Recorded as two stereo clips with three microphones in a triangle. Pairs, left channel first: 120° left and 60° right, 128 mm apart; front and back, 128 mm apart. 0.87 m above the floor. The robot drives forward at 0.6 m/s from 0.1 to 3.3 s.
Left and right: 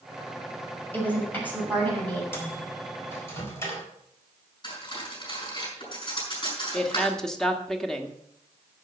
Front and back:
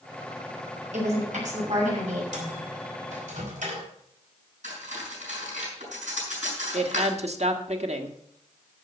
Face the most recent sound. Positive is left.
turn(degrees=-155)